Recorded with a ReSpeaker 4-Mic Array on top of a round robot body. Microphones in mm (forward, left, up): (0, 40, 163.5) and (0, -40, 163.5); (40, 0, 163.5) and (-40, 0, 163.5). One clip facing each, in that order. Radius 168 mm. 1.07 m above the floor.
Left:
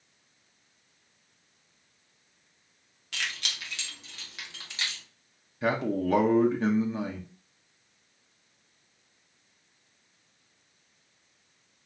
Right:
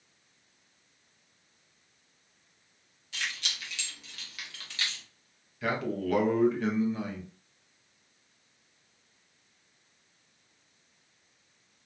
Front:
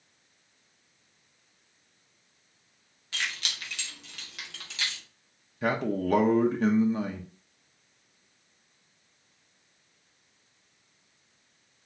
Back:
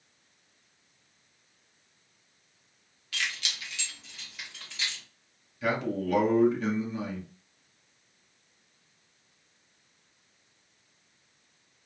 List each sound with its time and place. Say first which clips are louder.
3.1 s keys jangling: left 1 dB, even; 65° left, 0.7 m; by 5.0 s 15° left, 1.4 m
5.6 s a man speaking: left 4 dB, front 1 dB; 35° left, 1.0 m